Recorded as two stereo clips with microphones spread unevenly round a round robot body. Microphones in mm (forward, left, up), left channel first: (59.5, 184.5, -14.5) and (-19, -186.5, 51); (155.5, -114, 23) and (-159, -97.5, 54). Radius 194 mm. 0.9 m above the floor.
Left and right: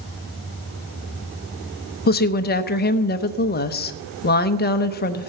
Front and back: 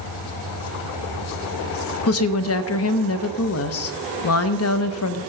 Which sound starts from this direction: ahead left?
A woman speaking, at 2.1 s.